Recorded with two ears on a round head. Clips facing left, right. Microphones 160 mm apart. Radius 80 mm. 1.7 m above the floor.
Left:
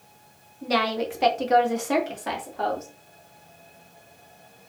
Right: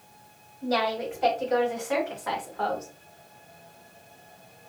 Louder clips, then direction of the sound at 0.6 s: Left 1 dB; 80° left.